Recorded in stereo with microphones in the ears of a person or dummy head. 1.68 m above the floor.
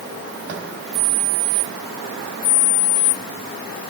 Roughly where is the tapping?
Right.